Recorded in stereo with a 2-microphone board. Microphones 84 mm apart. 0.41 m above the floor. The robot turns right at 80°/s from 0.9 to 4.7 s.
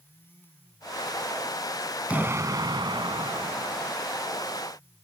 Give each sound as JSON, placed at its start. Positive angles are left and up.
{"t": 2.1, "sound": "an explosion", "azimuth_deg": -160}